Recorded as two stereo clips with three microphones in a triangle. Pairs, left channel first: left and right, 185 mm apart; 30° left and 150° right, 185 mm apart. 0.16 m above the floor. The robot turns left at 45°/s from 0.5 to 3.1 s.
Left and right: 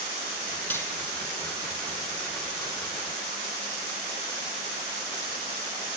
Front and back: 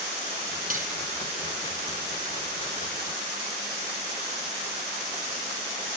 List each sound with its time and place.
0.7 s cutlery clinking: 170° left, 3.5 m; by 0.9 s 160° left, 3.5 m